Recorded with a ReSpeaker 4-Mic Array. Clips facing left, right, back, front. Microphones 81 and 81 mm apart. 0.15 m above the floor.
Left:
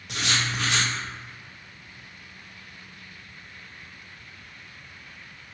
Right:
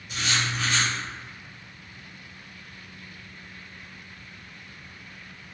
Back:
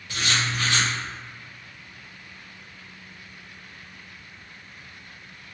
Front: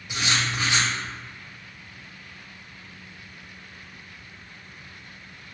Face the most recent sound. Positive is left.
turn(degrees=75)